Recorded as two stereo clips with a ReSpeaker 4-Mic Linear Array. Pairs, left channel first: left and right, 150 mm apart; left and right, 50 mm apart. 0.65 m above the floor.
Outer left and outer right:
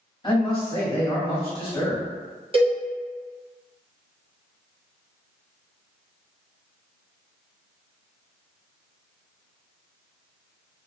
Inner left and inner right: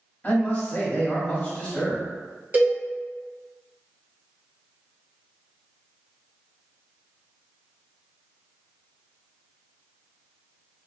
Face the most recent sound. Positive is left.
turn(degrees=-35)  # may be behind; listen again after turning